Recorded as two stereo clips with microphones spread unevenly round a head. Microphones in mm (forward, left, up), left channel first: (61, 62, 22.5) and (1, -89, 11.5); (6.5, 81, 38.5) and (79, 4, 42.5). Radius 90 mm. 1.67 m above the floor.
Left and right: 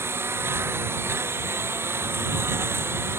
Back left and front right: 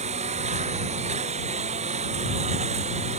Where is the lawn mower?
35° right.